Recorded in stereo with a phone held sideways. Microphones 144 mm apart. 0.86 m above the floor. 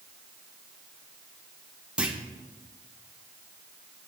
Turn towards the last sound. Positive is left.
turn(degrees=-5)  # may be behind; listen again after turning